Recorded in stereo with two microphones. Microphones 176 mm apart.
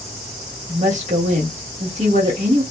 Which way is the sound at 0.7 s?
45° right (ahead or behind).